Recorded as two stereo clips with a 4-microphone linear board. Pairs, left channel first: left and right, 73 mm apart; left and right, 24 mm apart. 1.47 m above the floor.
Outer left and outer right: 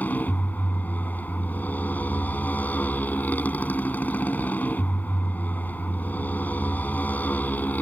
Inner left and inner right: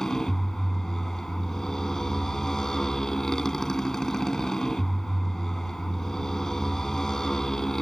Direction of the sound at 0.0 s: 25° left (ahead or behind).